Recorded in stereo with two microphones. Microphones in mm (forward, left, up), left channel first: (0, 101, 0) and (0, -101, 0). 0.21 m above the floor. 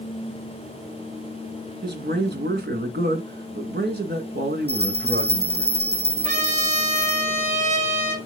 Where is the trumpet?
40° right (ahead or behind), 5.5 m.